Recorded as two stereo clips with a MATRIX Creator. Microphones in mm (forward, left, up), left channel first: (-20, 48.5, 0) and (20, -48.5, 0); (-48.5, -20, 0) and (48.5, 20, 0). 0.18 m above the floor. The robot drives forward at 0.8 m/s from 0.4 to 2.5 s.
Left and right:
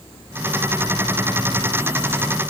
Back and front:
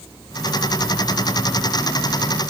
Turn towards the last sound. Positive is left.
No sound to turn to.